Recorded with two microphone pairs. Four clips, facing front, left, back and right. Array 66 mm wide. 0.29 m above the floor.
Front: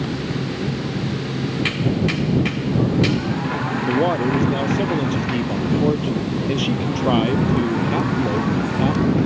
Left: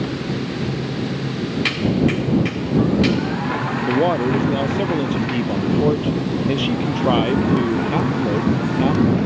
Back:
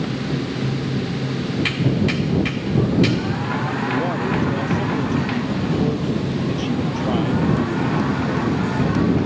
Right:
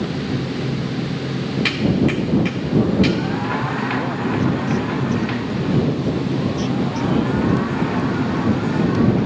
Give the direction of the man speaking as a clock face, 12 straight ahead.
10 o'clock.